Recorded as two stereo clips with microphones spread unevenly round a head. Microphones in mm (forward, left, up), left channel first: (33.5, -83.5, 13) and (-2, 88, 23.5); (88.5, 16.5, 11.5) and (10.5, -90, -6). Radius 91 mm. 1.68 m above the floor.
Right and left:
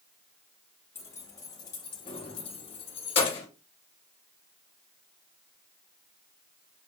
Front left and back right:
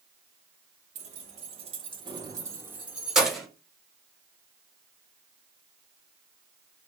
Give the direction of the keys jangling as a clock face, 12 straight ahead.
5 o'clock.